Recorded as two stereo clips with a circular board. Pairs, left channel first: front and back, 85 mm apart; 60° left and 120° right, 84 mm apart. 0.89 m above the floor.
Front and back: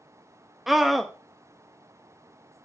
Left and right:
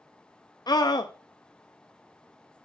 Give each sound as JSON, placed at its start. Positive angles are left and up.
{"t": 0.7, "sound": "a scream", "azimuth_deg": 90, "distance_m": 0.8}